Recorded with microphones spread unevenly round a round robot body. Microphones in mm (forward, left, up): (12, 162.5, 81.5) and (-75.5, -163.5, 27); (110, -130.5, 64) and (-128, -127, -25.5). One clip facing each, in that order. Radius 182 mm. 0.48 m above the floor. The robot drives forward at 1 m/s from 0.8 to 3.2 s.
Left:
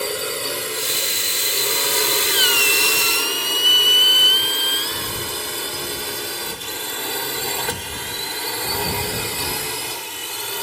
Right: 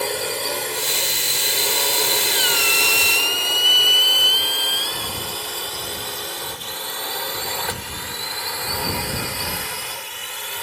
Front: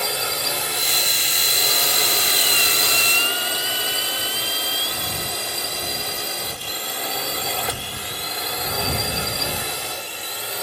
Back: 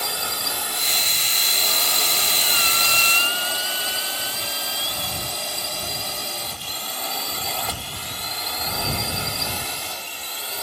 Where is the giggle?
No giggle in this recording.